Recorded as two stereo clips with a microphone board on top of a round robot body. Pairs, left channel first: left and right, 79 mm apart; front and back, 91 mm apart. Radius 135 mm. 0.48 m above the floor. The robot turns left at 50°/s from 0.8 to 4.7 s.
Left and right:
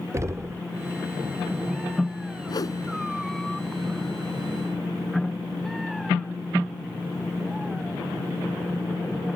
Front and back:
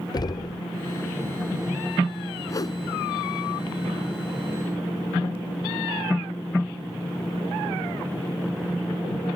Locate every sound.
0.1 s knocking: 40° right
2.5 s a whoosh: 55° left; by 2.8 s 40° left